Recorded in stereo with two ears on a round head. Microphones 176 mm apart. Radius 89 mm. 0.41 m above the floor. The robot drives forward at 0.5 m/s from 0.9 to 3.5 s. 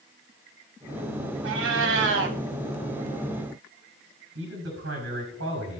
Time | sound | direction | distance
1.4 | a cat meowing | 75° right (ahead or behind) | 1.5 m
4.3 | a man speaking | 75° right (ahead or behind) | 5 m